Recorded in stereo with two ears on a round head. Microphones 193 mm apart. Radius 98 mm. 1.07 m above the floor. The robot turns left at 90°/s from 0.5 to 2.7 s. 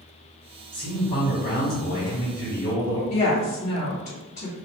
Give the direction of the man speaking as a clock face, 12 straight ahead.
6 o'clock.